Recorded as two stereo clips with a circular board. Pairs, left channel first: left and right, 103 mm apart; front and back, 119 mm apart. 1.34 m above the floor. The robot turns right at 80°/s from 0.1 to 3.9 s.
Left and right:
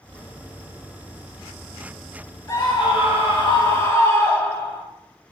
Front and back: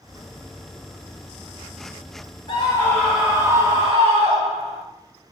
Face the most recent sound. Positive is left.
turn(degrees=145)